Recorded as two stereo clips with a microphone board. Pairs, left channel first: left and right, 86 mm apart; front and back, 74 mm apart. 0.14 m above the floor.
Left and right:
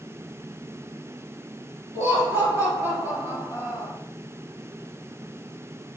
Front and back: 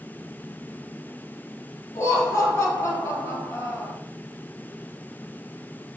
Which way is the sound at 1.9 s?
40° right.